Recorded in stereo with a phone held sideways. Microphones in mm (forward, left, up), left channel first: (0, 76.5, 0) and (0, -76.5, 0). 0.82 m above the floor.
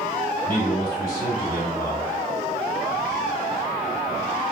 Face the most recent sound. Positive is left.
turn(degrees=65)  # may be behind; listen again after turning